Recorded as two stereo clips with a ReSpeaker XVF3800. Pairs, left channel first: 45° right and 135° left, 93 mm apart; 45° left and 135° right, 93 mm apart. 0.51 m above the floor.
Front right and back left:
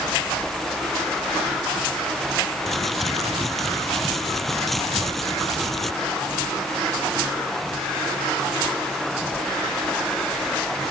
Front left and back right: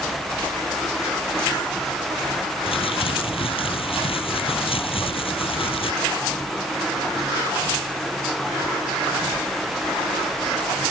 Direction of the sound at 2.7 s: 40° left.